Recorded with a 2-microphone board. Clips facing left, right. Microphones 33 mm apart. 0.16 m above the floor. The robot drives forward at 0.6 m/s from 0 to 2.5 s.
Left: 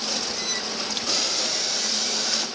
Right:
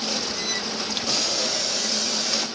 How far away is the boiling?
About 1.8 m.